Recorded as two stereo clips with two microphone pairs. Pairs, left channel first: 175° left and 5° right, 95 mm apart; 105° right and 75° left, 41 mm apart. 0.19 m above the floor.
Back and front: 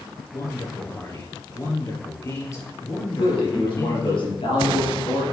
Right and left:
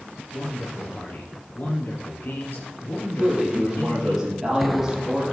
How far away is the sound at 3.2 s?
About 4 m.